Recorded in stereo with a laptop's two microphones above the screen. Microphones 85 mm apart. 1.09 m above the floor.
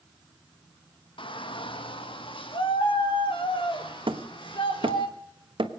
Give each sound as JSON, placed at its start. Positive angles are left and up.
{"t": 1.2, "sound": "a shout", "side_deg": 75, "distance_m": 1.0}
{"t": 4.1, "sound": "hammering", "side_deg": -75, "distance_m": 1.2}